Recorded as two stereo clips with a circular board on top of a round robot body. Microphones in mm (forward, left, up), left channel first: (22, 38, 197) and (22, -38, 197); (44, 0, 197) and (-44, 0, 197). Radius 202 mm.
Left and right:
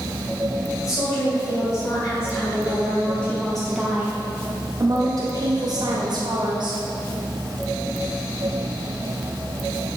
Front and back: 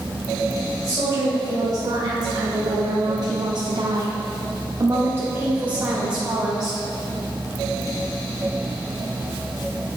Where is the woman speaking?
130° left, 2.5 m; by 6.8 s 95° right, 2.5 m.